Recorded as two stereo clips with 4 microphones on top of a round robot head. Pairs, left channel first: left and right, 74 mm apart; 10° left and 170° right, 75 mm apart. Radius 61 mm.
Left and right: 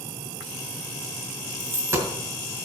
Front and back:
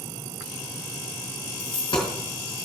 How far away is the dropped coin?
About 2 m.